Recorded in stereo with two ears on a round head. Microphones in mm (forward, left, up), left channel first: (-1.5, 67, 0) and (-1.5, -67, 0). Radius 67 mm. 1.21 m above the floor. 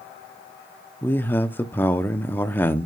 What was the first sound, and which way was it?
A man speaking, 15° left (ahead or behind).